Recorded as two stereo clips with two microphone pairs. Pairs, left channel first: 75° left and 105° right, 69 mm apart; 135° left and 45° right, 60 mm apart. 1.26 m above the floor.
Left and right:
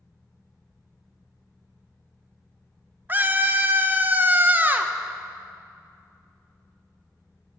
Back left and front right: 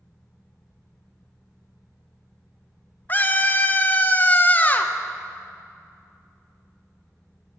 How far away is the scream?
About 1.3 m.